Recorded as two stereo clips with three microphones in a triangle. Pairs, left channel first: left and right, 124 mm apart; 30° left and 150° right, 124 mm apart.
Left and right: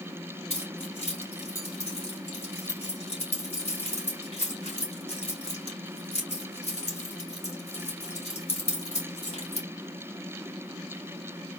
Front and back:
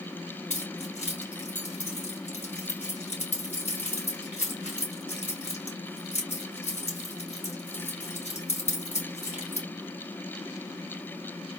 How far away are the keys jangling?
About 2.5 m.